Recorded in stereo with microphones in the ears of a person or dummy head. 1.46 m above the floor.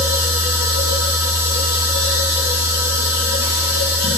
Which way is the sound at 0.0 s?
60° left (ahead or behind).